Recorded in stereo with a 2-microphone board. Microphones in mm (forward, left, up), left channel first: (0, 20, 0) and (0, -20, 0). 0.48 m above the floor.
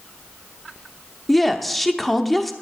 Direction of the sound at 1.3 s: 5° left (ahead or behind).